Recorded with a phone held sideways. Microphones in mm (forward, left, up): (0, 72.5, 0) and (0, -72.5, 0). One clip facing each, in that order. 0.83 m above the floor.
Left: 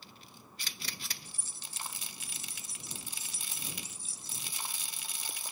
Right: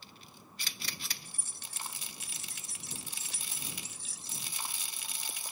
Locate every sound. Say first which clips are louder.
1.2 s keys jangling: even; 55° right (ahead or behind); by 4.5 s 85° right